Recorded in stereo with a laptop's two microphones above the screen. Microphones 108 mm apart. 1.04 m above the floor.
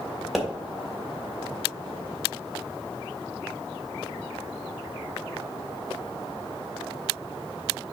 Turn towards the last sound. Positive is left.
turn(degrees=-5)  # may be behind; listen again after turning